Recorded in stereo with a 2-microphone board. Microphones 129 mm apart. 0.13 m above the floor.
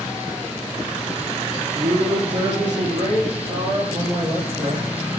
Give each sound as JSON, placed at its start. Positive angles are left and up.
{"t": 1.8, "sound": "a man speaking", "side_deg": -70, "distance_m": 4.5}